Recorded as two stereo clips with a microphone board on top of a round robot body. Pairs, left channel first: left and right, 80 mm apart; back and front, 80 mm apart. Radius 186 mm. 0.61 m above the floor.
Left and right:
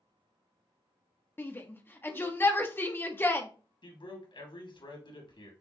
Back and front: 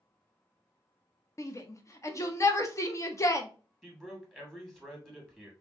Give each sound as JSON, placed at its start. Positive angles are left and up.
{"t": 1.4, "sound": "a shout", "azimuth_deg": 145, "distance_m": 1.3}
{"t": 3.8, "sound": "a man speaking", "azimuth_deg": 95, "distance_m": 2.5}